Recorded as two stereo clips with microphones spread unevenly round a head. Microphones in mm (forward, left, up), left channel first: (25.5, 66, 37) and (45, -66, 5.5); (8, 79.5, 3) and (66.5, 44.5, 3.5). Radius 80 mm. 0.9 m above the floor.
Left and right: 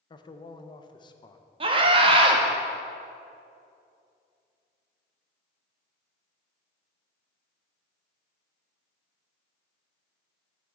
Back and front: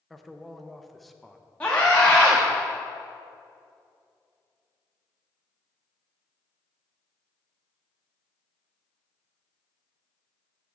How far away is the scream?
About 1.1 m.